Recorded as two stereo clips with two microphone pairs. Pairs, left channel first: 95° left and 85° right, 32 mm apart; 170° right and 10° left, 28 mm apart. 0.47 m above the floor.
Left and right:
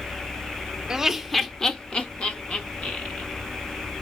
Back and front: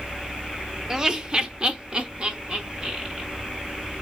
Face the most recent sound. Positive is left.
turn(degrees=65)